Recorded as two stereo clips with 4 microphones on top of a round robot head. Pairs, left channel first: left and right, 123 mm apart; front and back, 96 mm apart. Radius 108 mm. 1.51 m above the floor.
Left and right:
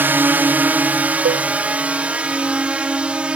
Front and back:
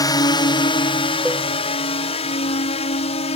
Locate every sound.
0.0 s a drone: 25° right; by 3.4 s 10° right
1.2 s a cowbell: 90° right